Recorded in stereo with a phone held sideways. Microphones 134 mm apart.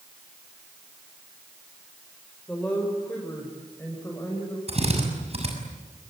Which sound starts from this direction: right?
A drill, at 4.7 s.